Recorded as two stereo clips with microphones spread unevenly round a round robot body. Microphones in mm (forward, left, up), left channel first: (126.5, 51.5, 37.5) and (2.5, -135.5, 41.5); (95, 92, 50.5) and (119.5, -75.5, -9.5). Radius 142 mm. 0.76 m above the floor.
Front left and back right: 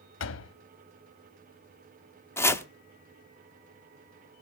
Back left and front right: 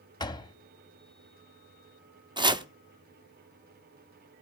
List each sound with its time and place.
0.2 s a door slam: 25° left, 1.1 m
2.4 s chopping: 25° right, 1.3 m